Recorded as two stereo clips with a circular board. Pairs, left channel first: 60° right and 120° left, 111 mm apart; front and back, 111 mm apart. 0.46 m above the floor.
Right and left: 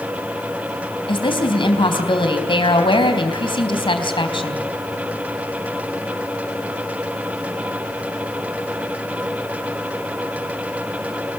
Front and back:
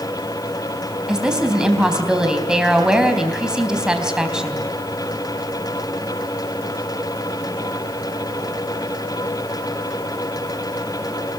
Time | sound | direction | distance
1.1 | a woman speaking | 95° right | 3.5 m